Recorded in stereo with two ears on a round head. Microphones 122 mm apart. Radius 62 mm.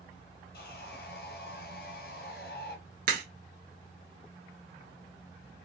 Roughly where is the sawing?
Left.